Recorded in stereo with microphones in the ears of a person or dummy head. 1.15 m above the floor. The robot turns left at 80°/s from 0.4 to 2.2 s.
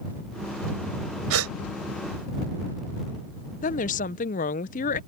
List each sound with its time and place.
1.3 s a gasp: 85° right; by 1.5 s 70° right (ahead or behind)
3.6 s a woman speaking: 35° left (ahead or behind)